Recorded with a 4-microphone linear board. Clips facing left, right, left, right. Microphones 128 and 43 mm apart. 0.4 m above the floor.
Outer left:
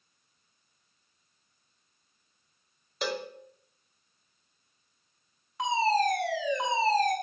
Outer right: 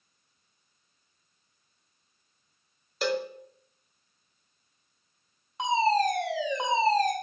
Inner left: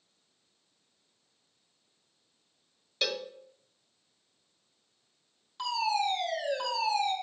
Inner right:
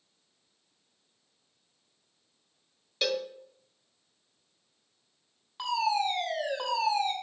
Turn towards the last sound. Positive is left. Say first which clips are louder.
# outer right 2 dB, inner right 1 dB
turn(degrees=-20)  # may be behind; listen again after turning